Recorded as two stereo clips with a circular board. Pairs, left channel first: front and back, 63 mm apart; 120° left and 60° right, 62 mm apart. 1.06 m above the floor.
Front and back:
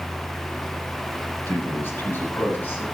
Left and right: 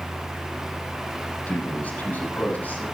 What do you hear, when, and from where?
1.5 s a man speaking: 55° left, 6.5 m